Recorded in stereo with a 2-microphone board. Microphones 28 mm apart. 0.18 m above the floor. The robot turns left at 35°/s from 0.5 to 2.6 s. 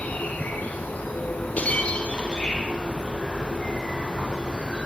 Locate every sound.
0.0 s an insect: 110° left, 4.5 m; by 4.9 s 35° left, 4.5 m
1.6 s breaking glass: 60° left, 3 m; by 2.6 s 25° left, 3 m